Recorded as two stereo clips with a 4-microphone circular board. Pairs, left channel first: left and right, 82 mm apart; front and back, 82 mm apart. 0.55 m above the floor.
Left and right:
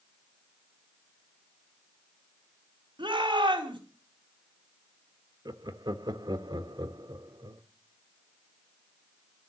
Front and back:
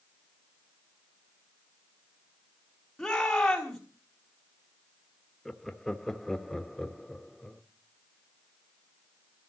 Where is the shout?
85° right, 5.5 m.